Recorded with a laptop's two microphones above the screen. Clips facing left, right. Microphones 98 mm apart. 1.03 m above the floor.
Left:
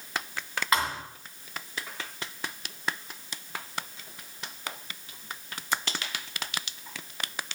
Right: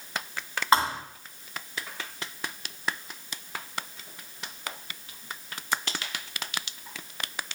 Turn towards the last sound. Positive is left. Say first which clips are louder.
# right 5 dB
turn(degrees=-30)  # may be behind; listen again after turning